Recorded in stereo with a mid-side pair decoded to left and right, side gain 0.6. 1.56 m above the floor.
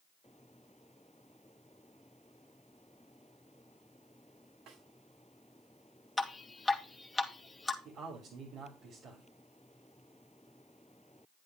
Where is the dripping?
10° left, 2.5 m.